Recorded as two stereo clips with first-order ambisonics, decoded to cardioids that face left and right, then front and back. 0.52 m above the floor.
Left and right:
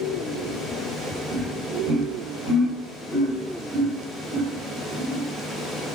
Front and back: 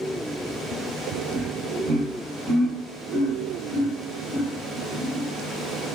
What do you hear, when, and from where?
1.3 s laughter: 150° right, 1.4 m; by 5.2 s 90° right, 3 m